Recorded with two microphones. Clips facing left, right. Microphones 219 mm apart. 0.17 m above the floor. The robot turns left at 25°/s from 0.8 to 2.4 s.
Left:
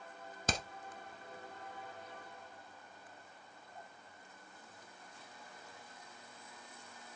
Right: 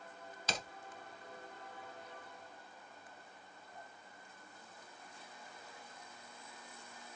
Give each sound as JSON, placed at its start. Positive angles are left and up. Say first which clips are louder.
{"t": 0.5, "sound": "hammering", "louder": "left 4 dB", "side_deg": 50, "distance_m": 0.9}